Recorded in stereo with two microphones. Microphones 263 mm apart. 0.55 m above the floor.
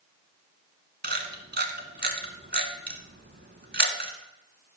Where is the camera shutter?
40° right (ahead or behind), 1.1 m.